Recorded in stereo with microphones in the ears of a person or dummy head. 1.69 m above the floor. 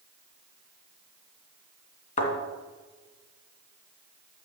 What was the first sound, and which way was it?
A thud, 40° left (ahead or behind).